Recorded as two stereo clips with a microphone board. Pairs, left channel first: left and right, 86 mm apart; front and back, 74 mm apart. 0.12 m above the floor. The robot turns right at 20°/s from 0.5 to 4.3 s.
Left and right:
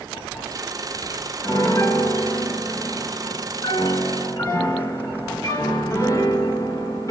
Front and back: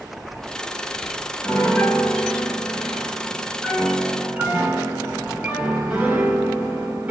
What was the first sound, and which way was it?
A piano, 65° left.